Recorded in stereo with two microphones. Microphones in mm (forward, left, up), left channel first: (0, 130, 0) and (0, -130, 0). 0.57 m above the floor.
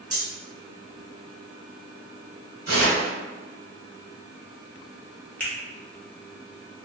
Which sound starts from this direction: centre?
A finger snap, at 5.4 s.